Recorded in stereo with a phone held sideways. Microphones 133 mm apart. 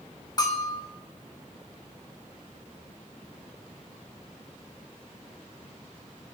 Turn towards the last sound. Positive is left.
turn(degrees=30)  # may be behind; listen again after turning